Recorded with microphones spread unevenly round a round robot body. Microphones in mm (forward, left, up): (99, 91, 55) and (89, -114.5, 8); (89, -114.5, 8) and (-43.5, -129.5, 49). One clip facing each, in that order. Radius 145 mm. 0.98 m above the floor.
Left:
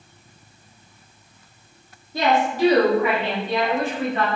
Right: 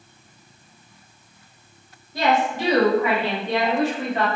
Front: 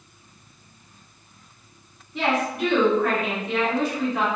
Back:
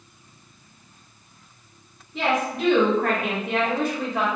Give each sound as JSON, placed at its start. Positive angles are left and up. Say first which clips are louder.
{"t": 2.1, "sound": "a woman speaking", "louder": "left 1 dB, even", "azimuth_deg": 90, "distance_m": 1.0}